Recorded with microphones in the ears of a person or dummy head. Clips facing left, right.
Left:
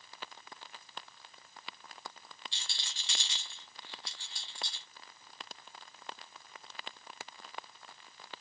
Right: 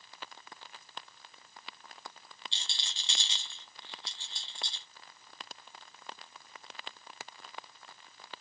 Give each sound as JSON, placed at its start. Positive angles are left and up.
{"t": 2.5, "sound": "a rattle", "side_deg": -25, "distance_m": 0.8}